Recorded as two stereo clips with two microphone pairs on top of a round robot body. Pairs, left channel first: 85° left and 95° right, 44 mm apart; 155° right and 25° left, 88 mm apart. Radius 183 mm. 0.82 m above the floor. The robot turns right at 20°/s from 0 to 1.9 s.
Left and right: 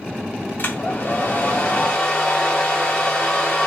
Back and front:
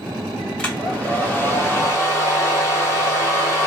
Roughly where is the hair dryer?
Behind left.